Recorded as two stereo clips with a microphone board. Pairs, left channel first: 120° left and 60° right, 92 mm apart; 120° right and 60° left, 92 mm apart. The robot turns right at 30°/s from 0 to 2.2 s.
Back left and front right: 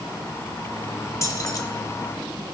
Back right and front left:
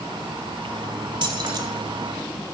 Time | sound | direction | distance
1.2 | keys jangling | 70° left | 1.0 m